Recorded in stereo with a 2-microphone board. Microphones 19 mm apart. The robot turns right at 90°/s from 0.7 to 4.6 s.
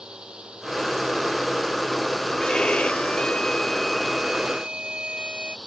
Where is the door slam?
I don't hear a door slam.